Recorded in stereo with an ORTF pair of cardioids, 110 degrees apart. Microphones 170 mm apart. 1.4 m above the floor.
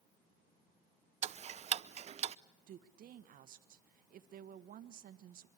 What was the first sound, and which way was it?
Ticking, 40° right.